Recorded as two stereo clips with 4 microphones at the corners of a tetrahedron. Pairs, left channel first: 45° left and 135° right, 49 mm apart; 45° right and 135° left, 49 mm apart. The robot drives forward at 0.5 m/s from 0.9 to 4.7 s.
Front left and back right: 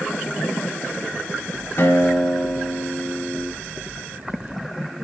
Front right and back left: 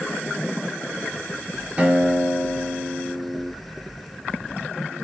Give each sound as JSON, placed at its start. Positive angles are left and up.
{"t": 1.8, "sound": "a guitar", "azimuth_deg": 70, "distance_m": 3.5}